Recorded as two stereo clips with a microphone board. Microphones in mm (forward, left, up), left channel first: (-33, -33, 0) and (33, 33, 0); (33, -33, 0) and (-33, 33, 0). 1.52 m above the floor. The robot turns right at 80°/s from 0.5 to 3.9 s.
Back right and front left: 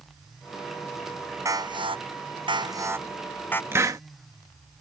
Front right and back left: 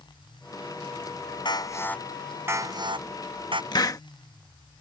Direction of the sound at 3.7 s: 15° right.